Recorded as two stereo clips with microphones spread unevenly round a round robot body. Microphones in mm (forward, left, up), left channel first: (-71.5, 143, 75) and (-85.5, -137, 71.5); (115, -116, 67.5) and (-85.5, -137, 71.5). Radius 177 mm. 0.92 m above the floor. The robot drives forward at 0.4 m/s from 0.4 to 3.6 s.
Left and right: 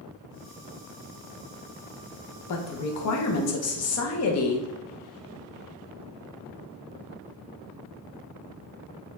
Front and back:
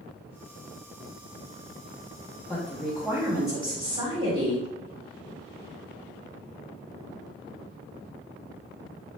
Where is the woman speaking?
85° left, 0.8 m; by 4.7 s 120° left, 0.9 m.